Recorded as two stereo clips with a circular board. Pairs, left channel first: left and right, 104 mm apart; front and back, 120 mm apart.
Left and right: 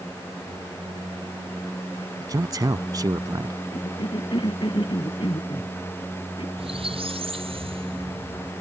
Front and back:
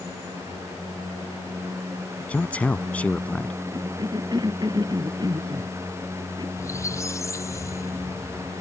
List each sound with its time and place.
2.2 s a man speaking: 70° right
3.7 s a cough: 125° left
6.6 s a squeak: 65° right